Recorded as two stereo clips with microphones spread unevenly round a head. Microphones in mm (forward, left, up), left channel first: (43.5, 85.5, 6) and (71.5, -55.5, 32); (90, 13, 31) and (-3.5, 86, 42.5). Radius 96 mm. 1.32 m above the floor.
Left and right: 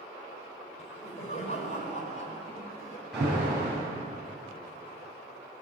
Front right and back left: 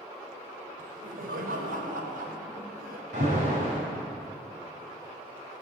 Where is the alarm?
165° right, 9 m.